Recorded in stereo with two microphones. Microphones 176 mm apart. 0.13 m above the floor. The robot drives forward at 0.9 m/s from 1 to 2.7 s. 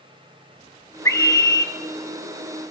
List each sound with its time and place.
1.1 s a scream: 15° left (ahead or behind), 1.5 m; by 1.7 s 20° left (ahead or behind), 1.3 m